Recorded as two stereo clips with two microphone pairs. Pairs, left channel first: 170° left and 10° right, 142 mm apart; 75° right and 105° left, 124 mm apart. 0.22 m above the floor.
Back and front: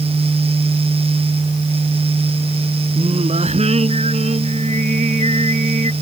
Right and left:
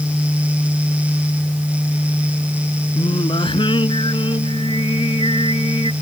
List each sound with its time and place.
3.0 s singing: 40° right